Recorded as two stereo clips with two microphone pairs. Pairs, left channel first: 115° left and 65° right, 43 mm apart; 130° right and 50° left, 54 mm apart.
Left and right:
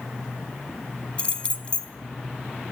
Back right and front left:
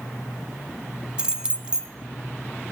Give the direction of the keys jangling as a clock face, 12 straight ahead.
9 o'clock.